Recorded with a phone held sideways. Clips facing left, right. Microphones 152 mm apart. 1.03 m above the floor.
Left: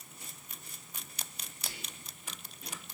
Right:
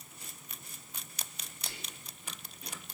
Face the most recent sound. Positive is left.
turn(degrees=5)  # may be behind; listen again after turning